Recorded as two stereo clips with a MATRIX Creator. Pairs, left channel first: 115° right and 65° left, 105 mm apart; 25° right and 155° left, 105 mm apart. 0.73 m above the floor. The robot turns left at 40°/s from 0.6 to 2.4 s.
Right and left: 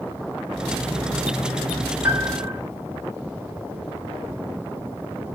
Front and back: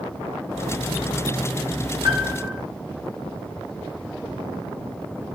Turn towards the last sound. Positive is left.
turn(degrees=125)